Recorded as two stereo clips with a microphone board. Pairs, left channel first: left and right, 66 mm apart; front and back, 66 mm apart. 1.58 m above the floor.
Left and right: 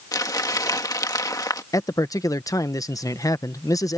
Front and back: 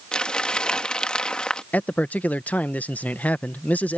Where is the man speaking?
65° left.